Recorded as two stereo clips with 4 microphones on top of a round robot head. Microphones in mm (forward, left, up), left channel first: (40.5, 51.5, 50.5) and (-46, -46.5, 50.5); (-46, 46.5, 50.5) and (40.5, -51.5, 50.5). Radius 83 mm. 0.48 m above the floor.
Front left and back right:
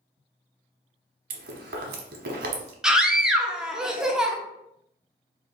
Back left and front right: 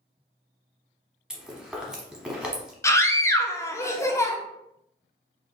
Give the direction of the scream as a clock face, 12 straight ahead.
7 o'clock.